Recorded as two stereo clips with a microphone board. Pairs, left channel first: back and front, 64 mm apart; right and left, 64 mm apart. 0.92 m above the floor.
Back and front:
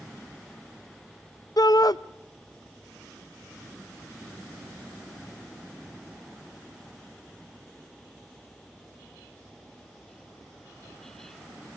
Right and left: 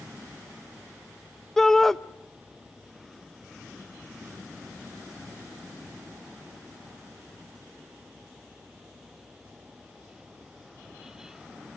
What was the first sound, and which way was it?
A shout, 175° right.